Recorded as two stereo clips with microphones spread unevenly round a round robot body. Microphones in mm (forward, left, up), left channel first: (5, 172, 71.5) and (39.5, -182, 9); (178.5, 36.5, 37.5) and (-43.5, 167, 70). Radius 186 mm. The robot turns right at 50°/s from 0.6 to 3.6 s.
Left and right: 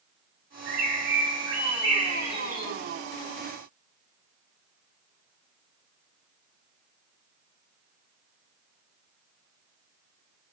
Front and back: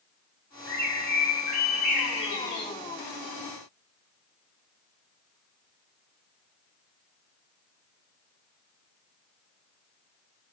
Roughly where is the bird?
Right.